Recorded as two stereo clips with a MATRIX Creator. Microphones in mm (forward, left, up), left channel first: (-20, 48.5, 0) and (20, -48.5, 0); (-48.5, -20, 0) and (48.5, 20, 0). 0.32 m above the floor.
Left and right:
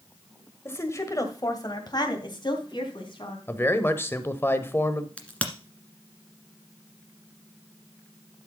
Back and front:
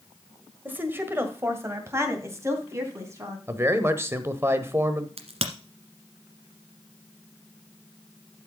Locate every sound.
0.7 s a woman speaking: 75° left, 1.6 m; by 3.4 s 85° left, 3.5 m
3.5 s a man speaking: 65° left, 1.2 m
5.2 s a crack: 35° left, 1.6 m